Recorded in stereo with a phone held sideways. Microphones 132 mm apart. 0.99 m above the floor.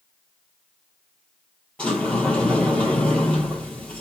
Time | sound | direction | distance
1.8 | a sliding door | 5° left (ahead or behind) | 4 m